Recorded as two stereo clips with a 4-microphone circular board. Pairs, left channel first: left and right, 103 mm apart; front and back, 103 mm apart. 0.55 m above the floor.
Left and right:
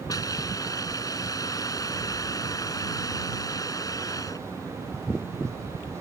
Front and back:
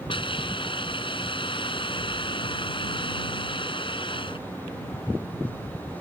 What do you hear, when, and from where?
0.1 s a hiss: 35° left